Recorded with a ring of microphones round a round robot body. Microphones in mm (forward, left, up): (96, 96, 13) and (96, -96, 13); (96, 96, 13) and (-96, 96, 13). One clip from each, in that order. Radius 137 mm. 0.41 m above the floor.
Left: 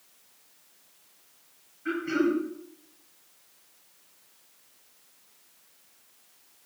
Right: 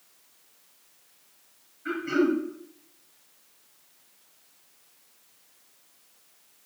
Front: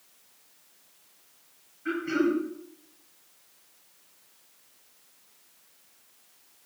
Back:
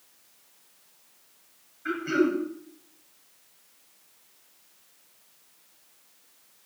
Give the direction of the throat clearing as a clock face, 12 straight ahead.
6 o'clock.